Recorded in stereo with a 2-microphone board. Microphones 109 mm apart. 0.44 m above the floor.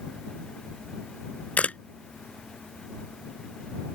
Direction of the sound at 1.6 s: 15° left (ahead or behind).